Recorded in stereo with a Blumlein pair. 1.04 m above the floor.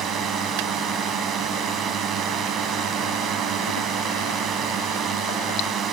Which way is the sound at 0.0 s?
25° right.